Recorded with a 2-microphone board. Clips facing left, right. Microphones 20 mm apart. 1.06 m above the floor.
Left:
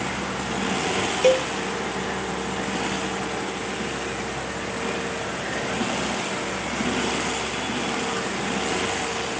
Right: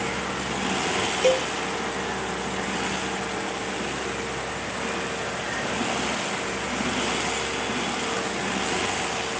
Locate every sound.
1.2 s a cowbell: 15° left (ahead or behind)